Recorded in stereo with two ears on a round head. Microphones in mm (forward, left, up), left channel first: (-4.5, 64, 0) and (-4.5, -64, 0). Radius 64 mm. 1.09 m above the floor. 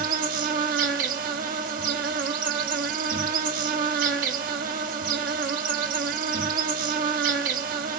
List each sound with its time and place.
0.0 s an insect: 65° right (ahead or behind), 0.8 m